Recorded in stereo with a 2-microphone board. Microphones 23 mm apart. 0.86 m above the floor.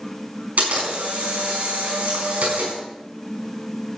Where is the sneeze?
No sneeze in this recording.